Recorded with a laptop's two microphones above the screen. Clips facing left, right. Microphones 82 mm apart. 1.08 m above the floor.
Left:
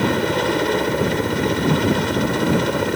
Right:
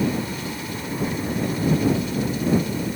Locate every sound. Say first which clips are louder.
0.0 s a helicopter: left 6 dB; 65° left (ahead or behind)